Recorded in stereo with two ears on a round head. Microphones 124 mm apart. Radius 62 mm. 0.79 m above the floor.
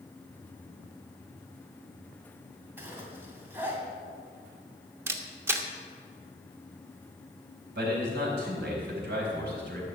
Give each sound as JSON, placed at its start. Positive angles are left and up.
{"t": 2.8, "sound": "a zipper", "side_deg": -15, "distance_m": 2.5}
{"t": 5.1, "sound": "a camera shutter", "side_deg": -20, "distance_m": 1.1}
{"t": 7.8, "sound": "a man speaking", "side_deg": -85, "distance_m": 4.5}